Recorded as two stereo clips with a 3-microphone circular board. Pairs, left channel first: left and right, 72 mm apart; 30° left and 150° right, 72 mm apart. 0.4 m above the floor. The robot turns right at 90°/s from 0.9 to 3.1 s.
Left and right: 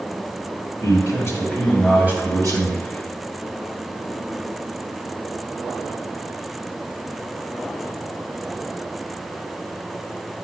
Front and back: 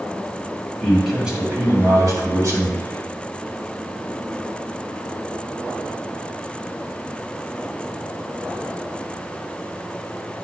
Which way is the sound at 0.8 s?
105° left.